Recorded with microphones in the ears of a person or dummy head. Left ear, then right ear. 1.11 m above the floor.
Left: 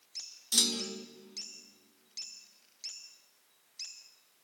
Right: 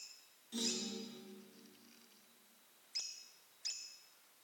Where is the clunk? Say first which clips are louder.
Left 11 dB; 60° left (ahead or behind), 0.6 m.